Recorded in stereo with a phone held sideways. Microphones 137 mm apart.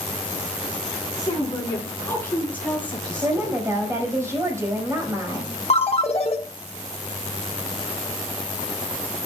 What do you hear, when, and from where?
1.2 s a woman speaking: 25° left (ahead or behind), 8.5 m; by 3.6 s 5° left (ahead or behind), 10.5 m
3.2 s a woman speaking: 20° right (ahead or behind), 5 m
5.7 s a ringtone: 45° left (ahead or behind), 1.3 m